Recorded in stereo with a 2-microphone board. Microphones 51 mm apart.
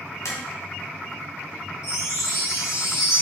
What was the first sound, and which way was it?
Tapping, 80° left.